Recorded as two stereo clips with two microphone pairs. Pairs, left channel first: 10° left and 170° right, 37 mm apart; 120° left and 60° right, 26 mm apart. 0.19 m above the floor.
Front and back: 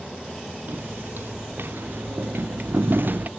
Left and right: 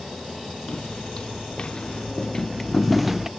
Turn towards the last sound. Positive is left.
turn(degrees=-135)